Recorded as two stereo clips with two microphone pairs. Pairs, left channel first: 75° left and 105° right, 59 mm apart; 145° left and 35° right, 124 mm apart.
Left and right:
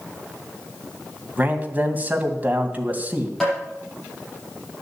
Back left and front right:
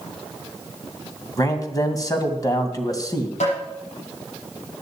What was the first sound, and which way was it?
A man speaking, 160° right.